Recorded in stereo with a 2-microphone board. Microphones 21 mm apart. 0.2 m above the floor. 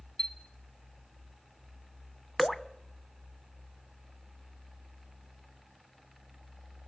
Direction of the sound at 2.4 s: 15° left (ahead or behind).